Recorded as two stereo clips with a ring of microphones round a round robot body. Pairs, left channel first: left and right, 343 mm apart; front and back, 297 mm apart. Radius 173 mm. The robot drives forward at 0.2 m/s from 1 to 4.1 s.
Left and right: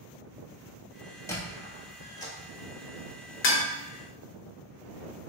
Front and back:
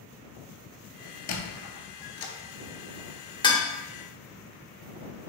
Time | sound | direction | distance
1.3 | a squeak | 10° left | 0.7 m
3.4 | dishes clattering | 65° left | 0.6 m